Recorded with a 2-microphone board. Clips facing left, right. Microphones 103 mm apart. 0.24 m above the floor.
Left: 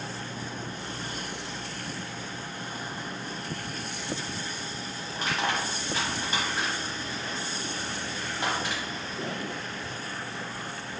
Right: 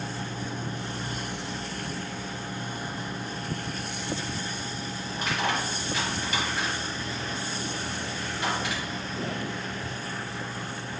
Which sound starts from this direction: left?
Crushing, at 5.2 s.